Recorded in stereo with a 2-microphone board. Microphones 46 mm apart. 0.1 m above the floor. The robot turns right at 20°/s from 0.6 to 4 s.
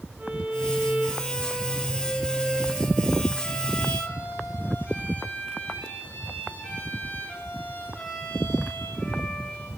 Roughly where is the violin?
Ahead right.